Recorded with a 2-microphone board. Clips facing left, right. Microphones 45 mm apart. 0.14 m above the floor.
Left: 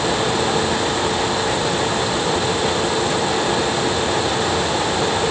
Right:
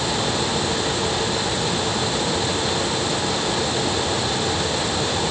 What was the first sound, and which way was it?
Only background noise.